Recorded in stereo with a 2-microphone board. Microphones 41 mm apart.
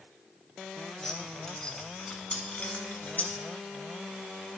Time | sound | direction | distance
1.0 | keys jangling | 10° left (ahead or behind) | 2.0 m